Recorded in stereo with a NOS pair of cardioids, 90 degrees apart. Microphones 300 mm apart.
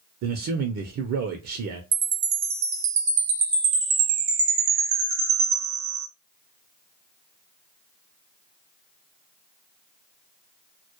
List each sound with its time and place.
0.2 s a man speaking: 60° right, 0.5 m
1.9 s a chime: 65° right, 0.8 m